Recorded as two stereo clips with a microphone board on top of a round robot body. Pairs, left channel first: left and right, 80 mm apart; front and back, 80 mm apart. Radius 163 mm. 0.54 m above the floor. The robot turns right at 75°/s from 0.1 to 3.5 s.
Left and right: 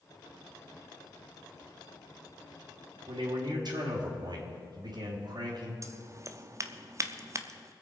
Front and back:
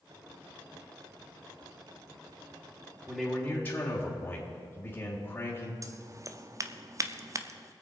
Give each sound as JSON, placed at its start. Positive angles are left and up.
{"t": 3.1, "sound": "a man speaking", "azimuth_deg": -100, "distance_m": 2.5}
{"t": 5.8, "sound": "scissors", "azimuth_deg": -135, "distance_m": 0.9}